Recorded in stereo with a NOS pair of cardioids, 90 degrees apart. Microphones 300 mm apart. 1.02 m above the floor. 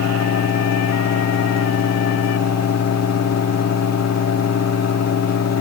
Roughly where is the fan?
Ahead left.